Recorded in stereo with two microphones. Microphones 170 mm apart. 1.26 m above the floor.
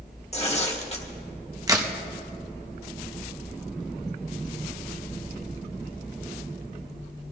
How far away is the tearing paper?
About 1.4 m.